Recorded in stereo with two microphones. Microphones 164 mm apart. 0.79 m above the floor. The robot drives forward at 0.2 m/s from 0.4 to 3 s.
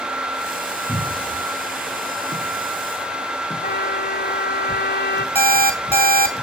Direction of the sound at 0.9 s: 20° left (ahead or behind).